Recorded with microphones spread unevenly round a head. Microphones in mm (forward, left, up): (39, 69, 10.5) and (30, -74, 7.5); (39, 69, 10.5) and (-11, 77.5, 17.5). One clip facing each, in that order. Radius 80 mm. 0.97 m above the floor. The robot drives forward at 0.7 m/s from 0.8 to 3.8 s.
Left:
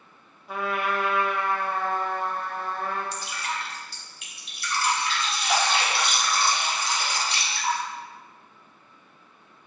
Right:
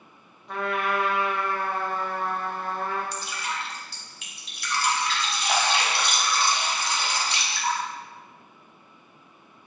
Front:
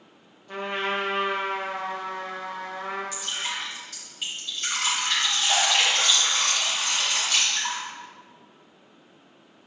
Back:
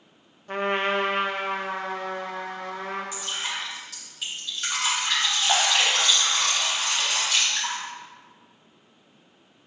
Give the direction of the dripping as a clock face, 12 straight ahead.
4 o'clock.